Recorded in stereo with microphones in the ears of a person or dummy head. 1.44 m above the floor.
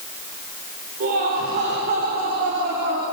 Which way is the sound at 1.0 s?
50° right (ahead or behind).